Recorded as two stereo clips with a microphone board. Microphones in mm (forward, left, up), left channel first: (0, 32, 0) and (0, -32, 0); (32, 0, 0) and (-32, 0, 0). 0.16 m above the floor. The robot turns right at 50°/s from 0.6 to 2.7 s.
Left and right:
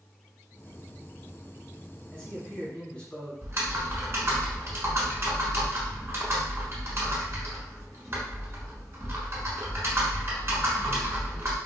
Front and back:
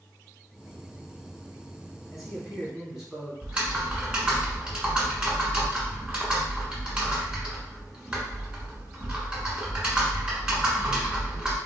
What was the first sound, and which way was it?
A man speaking, 85° left.